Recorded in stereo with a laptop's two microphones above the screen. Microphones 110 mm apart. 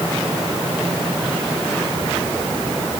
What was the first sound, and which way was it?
Only background noise.